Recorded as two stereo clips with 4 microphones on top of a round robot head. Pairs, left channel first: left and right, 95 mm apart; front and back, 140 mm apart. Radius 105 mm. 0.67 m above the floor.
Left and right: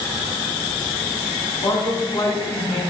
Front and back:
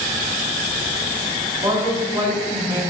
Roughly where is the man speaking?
Behind left.